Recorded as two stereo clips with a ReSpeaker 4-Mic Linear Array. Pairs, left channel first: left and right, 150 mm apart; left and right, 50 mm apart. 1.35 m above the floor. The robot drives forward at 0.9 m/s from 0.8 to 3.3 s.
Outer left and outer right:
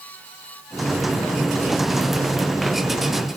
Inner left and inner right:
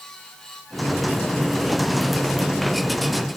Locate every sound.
Only background noise.